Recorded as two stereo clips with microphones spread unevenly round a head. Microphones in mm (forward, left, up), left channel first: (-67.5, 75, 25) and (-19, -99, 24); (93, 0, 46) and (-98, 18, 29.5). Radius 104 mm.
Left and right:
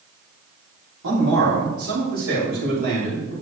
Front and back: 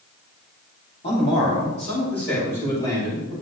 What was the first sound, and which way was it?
A man speaking, 60° right.